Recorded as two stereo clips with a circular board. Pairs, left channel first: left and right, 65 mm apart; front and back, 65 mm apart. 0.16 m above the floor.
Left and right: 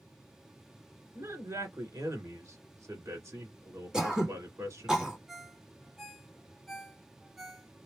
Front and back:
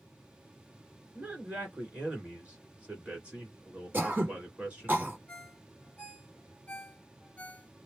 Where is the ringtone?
10° right, 0.9 m.